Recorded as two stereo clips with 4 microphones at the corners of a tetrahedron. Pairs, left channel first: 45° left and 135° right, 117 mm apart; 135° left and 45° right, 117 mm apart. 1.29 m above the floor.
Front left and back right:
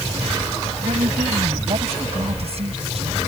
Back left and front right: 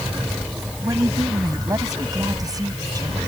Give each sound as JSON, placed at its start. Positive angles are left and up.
{"t": 0.8, "sound": "a woman speaking", "azimuth_deg": -105}